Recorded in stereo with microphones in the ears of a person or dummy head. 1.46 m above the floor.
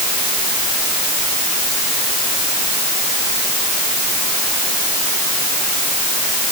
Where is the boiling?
I don't hear boiling.